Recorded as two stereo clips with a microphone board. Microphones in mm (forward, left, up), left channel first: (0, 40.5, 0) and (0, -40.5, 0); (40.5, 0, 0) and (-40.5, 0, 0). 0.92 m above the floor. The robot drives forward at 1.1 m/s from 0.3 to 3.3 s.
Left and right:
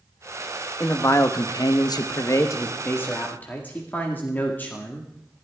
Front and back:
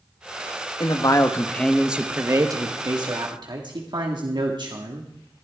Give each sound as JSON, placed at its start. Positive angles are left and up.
{"t": 0.8, "sound": "a man speaking", "azimuth_deg": 30, "distance_m": 1.4}